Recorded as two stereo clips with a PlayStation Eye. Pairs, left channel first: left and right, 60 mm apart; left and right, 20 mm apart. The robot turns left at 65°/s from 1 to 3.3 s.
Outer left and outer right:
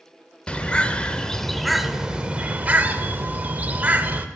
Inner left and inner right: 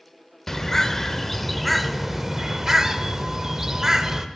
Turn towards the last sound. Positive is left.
turn(degrees=-25)  # may be behind; listen again after turning